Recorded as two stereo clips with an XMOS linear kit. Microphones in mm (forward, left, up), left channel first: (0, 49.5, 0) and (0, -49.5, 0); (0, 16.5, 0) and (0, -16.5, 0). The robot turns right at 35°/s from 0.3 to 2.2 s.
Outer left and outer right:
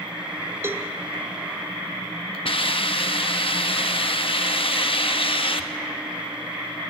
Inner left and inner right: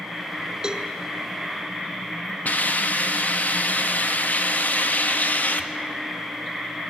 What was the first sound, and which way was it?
A cowbell, 25° right (ahead or behind).